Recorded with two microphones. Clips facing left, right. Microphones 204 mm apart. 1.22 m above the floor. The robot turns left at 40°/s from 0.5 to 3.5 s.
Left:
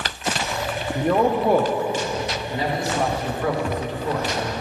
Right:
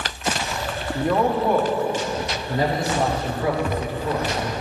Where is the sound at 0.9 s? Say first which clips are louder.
Left 1 dB; 170° left, 0.7 m; by 1.7 s 140° left, 0.7 m.